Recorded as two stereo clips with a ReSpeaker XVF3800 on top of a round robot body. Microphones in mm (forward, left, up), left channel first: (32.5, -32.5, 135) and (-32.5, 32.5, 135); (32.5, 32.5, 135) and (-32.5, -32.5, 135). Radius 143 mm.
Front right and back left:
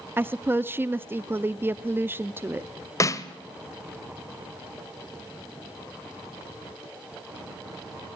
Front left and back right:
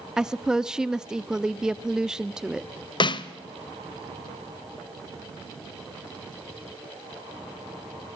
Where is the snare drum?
10° left, 1.1 m.